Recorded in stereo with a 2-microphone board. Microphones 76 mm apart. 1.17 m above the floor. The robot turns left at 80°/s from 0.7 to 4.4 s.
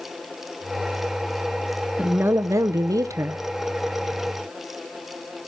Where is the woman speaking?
20° right, 0.6 m; by 3.4 s 135° right, 0.6 m.